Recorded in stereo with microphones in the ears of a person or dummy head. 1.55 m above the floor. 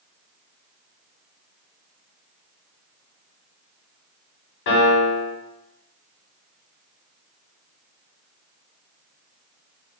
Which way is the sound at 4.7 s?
55° left (ahead or behind).